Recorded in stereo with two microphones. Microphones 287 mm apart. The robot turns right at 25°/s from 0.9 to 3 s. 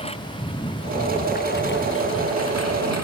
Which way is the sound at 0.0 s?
20° left.